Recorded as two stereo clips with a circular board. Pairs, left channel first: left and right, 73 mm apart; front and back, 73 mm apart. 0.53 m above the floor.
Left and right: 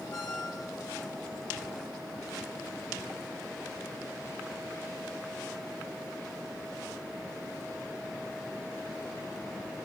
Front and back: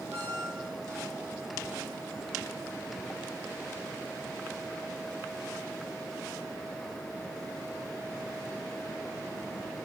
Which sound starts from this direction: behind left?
A squeak, at 0.1 s.